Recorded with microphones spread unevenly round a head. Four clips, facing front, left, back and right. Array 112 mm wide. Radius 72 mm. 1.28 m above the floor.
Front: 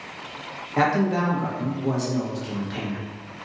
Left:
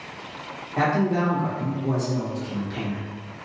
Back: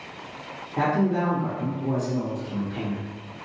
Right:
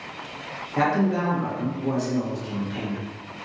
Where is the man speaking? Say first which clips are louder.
Even, front 2 dB; straight ahead, 1.3 m.